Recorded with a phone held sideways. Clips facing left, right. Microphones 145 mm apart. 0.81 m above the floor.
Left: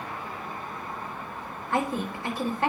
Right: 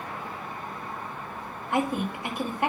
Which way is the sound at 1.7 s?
15° right (ahead or behind).